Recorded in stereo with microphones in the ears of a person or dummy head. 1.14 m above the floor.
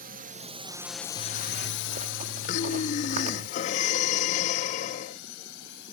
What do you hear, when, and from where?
0.0 s a drone: 40° right (ahead or behind); by 5.9 s 65° left (ahead or behind)
1.2 s a zipper: 40° right (ahead or behind)
2.5 s breathing: 40° left (ahead or behind)